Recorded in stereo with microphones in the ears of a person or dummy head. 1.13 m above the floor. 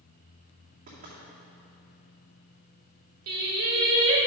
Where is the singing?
60° right (ahead or behind), 1.5 m.